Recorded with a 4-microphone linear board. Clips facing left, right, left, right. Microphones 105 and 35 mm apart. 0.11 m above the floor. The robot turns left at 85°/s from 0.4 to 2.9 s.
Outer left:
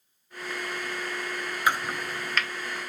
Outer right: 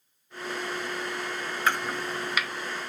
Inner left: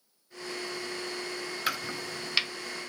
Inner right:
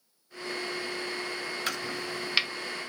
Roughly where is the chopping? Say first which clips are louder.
Outer left 1 dB, inner left 3 dB; centre.